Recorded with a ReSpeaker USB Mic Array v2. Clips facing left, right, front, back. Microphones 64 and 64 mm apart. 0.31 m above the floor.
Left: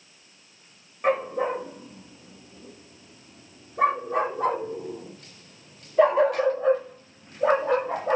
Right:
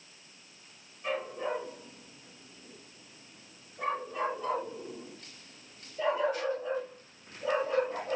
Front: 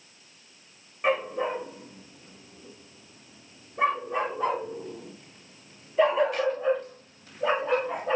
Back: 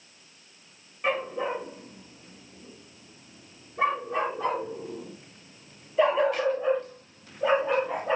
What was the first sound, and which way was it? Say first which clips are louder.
A dog barking: left 10 dB, front 2 dB; 70° left.